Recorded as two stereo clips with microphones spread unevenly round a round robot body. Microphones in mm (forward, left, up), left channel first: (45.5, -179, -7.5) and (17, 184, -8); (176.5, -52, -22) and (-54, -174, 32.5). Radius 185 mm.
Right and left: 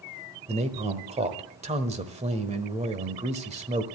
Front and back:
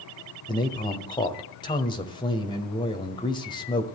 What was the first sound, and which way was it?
A man speaking, 40° left.